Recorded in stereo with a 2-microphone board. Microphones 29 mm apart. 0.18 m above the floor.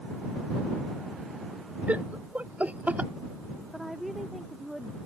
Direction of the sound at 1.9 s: 60° right (ahead or behind).